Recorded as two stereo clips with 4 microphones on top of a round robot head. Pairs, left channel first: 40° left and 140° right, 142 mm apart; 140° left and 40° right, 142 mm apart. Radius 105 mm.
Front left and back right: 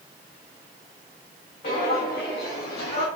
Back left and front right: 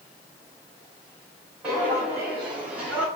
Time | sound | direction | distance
1.6 | footsteps | 40° left | 2.5 m